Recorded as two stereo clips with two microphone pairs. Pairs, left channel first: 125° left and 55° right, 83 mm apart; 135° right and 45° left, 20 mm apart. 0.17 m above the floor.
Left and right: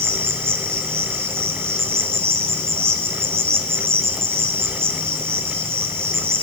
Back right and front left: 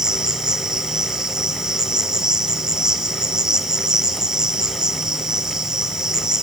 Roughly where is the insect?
Ahead.